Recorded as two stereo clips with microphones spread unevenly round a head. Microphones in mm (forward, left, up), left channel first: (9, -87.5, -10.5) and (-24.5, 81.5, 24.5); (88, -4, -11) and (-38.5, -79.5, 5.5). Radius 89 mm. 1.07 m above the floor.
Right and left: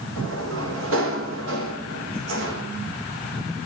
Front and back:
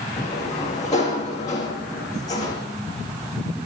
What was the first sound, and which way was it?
A sliding door, 105° left.